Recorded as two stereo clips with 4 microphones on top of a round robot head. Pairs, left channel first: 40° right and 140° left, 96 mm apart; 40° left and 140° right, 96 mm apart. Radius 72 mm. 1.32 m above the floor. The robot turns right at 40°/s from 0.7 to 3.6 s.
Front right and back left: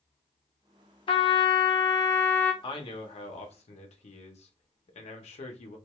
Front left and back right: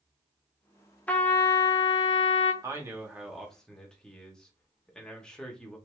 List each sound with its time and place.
1.1 s a trumpet: 35° right, 0.6 m; by 2.5 s 25° left, 0.6 m
2.6 s a man speaking: 80° right, 0.8 m; by 5.8 s 40° right, 0.8 m